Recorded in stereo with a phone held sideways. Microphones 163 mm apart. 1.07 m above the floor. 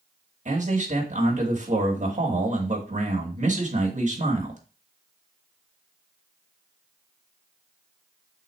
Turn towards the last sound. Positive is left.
turn(degrees=-50)  # may be behind; listen again after turning